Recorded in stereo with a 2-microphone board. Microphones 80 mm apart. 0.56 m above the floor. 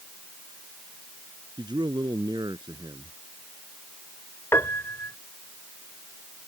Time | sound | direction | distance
1.6 | a man speaking | 75° right (ahead or behind) | ?
4.5 | a piano | 35° left (ahead or behind) | ?